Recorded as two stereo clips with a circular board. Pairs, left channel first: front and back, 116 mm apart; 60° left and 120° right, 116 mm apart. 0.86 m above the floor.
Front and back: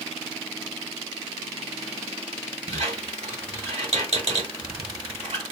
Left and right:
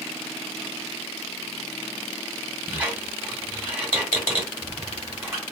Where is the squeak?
165° left, 1.4 m.